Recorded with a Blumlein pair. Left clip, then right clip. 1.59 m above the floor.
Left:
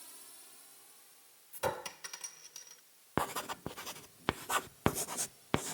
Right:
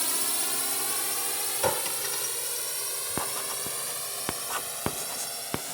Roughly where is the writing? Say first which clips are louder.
Even; ahead.